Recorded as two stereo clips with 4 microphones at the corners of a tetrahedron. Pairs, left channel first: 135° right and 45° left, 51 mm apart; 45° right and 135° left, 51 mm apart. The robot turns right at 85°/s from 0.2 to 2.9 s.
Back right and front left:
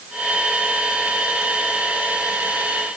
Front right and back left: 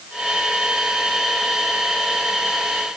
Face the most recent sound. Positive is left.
No sound to turn to.